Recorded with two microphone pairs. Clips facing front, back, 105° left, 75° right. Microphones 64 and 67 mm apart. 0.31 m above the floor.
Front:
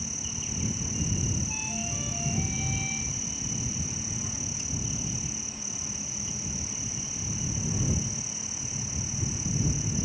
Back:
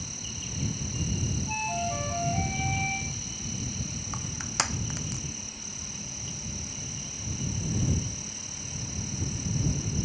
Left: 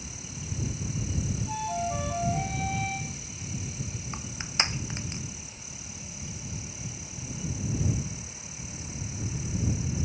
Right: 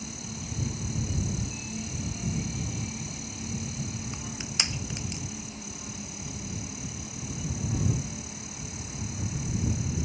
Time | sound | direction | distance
0.0 | an insect | 70° right | ?
1.5 | a flute | 130° left | ?
4.1 | crushing | 170° left | ?